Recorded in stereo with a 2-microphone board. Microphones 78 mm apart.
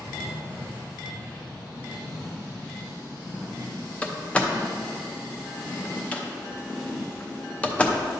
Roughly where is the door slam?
Centre.